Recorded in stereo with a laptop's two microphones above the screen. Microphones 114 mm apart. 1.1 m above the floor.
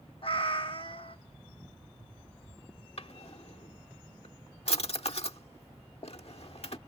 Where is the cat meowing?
55° left (ahead or behind).